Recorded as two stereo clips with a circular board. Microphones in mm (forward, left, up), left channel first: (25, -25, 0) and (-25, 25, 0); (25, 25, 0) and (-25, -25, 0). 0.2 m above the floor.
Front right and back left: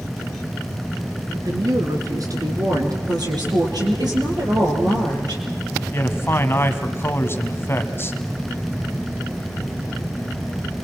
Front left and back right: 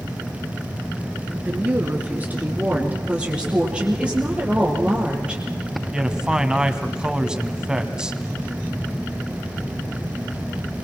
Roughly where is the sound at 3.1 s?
Behind left.